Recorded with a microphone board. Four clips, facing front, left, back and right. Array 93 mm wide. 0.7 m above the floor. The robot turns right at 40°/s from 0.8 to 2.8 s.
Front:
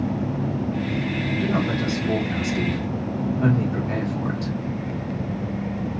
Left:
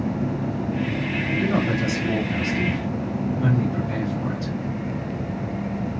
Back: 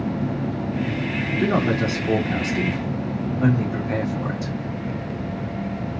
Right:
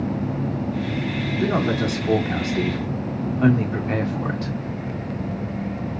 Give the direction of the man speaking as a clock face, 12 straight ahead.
6 o'clock.